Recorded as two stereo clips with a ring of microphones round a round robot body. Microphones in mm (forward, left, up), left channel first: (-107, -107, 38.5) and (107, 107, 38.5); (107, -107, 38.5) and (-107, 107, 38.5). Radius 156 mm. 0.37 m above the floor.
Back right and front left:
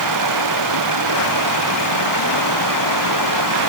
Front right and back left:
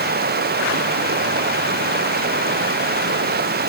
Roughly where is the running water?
Left.